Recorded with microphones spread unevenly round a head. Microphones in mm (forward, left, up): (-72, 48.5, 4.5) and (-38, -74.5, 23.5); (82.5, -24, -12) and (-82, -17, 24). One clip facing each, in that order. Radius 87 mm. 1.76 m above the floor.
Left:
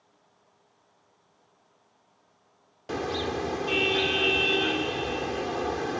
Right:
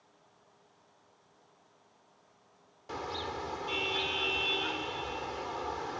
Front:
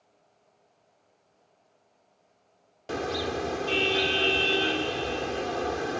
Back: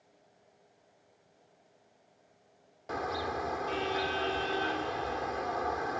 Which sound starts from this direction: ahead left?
A car horn, at 2.9 s.